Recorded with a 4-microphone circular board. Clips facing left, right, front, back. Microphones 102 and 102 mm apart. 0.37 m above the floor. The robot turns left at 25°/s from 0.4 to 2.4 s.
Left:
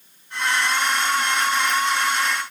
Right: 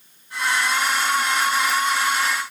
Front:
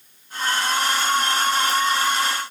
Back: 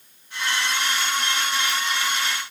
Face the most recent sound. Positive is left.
No sound to turn to.